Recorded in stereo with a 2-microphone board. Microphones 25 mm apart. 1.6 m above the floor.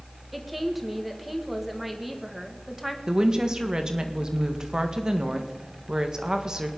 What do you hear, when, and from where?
0.3 s a woman speaking: 5° right (ahead or behind), 1.7 m
3.1 s a woman speaking: 30° right (ahead or behind), 1.5 m